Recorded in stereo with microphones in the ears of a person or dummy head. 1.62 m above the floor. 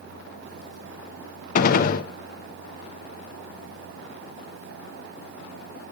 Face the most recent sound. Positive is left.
turn(degrees=55)  # may be behind; listen again after turning